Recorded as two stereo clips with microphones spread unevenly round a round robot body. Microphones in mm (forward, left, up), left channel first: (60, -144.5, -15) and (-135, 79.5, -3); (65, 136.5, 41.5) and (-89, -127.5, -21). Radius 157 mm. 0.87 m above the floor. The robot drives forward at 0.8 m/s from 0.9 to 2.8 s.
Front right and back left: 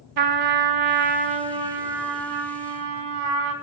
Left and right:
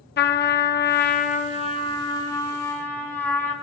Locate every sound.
0.2 s a trumpet: 120° left, 2.0 m; by 3.5 s 150° left, 3 m